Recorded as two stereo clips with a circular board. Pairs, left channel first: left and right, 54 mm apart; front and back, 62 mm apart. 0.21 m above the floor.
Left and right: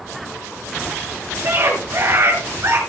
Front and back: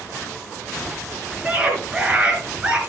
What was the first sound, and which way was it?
A scream, 110° right.